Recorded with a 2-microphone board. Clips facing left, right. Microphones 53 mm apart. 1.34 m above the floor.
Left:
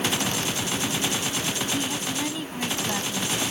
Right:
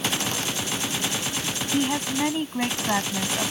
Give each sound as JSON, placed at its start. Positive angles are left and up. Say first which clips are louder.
{"t": 1.7, "sound": "a woman speaking", "louder": "right 4 dB", "side_deg": -30}